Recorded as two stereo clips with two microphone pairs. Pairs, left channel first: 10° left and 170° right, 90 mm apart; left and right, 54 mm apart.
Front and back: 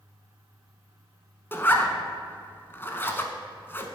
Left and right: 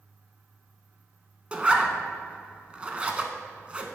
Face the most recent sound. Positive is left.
turn(degrees=-30)